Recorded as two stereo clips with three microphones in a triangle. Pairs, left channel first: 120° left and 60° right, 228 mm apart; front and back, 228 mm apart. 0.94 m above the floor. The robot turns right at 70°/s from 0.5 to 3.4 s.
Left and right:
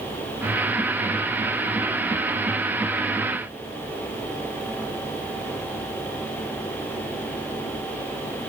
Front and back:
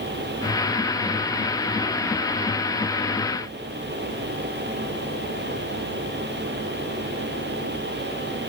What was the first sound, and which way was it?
Only background noise.